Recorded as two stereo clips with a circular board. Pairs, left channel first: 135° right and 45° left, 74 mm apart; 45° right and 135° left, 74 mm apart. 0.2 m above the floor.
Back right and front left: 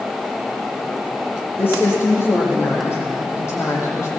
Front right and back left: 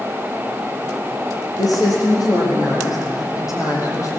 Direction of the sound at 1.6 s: 75° right.